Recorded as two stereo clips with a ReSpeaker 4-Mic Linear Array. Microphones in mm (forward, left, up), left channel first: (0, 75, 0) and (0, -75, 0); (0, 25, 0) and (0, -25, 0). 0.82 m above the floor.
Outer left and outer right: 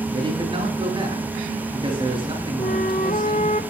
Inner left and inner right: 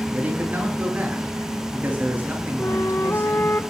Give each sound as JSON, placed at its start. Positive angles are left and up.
{"t": 0.1, "sound": "a man speaking", "side_deg": -30, "distance_m": 8.0}
{"t": 2.6, "sound": "a flute", "side_deg": 65, "distance_m": 1.6}